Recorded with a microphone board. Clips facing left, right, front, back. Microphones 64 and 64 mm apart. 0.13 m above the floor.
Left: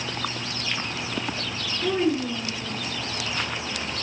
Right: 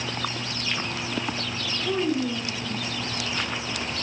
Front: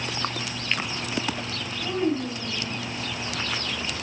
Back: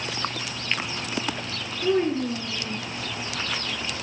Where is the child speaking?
130° left, 1.2 m; by 2.8 s 165° right, 1.7 m.